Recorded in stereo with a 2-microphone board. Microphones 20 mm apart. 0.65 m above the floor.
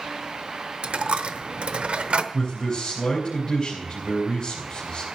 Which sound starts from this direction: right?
A dropped coin, at 0.8 s.